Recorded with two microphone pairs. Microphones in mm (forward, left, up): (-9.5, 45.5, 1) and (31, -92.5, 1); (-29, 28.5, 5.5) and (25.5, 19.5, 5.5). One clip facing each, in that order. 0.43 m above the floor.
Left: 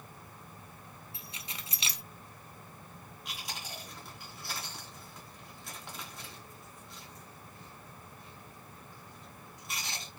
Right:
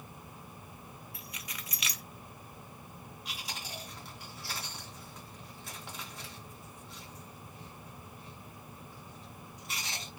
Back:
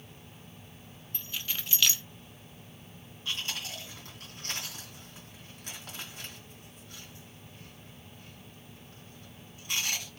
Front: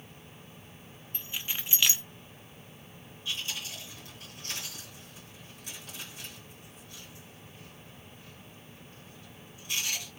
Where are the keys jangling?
55° left, 0.6 m.